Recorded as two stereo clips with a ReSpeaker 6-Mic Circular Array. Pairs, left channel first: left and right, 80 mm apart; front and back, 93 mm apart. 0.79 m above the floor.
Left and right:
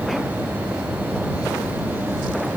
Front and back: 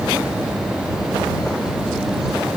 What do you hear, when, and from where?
Only background noise.